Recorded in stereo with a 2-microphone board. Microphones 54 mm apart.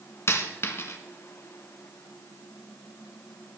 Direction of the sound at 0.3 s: 50° left (ahead or behind).